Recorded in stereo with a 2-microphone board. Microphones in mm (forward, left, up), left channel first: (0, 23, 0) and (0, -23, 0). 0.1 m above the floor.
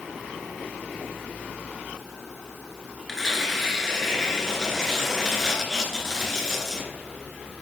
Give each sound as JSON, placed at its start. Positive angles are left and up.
{"t": 3.1, "sound": "tearing paper", "side_deg": 10, "distance_m": 1.0}